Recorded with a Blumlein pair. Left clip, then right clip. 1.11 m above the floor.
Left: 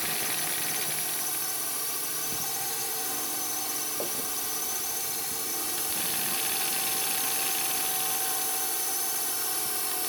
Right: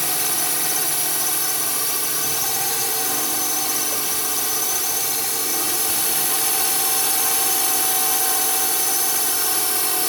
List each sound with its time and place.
0.0 s a drone: 65° right